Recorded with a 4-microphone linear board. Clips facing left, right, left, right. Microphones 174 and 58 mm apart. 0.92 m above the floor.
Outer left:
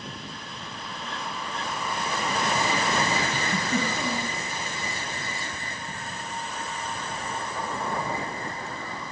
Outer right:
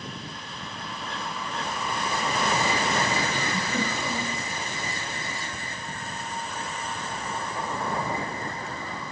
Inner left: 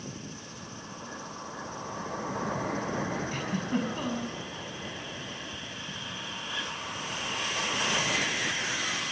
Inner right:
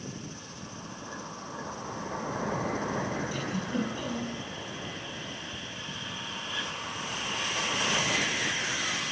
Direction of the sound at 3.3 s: 45° left (ahead or behind).